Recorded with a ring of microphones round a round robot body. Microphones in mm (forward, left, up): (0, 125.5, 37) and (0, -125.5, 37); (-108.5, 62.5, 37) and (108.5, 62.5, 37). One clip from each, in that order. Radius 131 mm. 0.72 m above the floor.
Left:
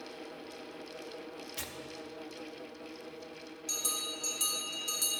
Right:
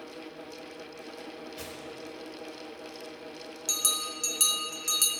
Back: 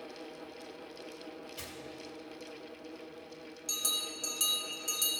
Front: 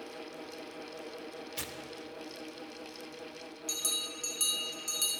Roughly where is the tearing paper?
Ahead left.